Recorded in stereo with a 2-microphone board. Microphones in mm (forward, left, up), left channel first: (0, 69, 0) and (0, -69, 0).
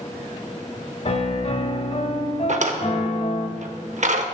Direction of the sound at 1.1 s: 50° left (ahead or behind).